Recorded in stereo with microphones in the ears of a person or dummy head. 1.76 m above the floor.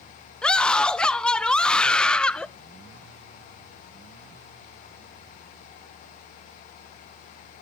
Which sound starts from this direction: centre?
A scream, at 0.4 s.